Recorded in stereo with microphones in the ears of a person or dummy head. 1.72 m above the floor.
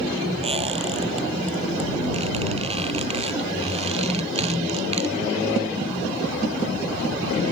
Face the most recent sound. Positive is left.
turn(degrees=-35)  # may be behind; listen again after turning